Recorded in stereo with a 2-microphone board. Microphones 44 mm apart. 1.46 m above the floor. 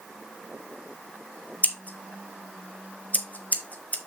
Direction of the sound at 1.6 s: 40° left (ahead or behind).